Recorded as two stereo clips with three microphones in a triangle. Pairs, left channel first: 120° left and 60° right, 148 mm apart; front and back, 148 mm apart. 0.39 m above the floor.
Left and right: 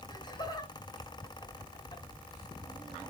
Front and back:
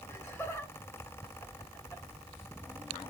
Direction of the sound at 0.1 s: 70° left.